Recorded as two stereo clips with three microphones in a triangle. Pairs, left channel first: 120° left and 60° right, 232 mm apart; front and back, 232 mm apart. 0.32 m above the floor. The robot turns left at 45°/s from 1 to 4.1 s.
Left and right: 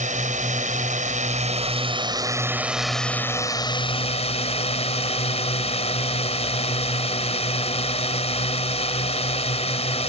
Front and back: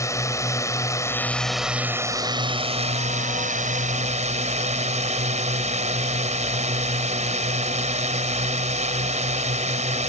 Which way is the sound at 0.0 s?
65° right.